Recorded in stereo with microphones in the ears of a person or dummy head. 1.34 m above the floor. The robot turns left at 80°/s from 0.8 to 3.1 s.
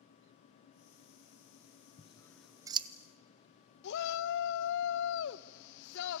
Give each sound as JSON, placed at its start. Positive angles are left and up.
{"t": 2.0, "sound": "scissors", "side_deg": 35, "distance_m": 0.9}
{"t": 3.8, "sound": "a shout", "side_deg": 65, "distance_m": 1.1}